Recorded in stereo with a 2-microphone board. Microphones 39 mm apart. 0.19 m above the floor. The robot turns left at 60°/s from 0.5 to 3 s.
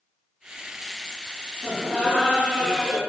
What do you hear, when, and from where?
1.6 s laughter: 15° right (ahead or behind), 1.7 m